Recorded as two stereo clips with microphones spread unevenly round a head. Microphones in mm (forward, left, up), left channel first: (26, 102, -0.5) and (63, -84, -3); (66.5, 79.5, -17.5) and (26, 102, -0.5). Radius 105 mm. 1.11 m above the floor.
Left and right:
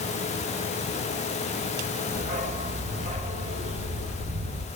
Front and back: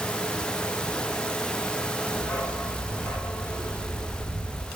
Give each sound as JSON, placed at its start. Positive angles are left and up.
{"t": 2.1, "sound": "a dog barking", "azimuth_deg": -30, "distance_m": 2.0}